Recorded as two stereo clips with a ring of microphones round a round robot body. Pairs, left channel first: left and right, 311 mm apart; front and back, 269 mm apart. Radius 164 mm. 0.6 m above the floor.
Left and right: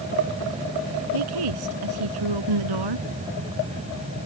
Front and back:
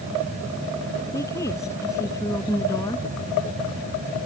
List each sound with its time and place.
1.1 s a woman speaking: 80° right